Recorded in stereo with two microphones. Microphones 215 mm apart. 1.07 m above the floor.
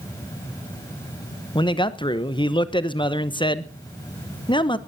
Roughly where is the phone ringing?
No phone ringing in this recording.